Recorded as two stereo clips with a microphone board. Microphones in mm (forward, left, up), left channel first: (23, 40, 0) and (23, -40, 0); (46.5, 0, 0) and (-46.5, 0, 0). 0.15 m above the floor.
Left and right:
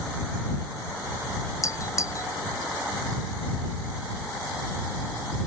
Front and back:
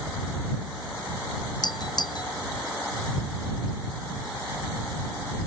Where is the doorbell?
40° left.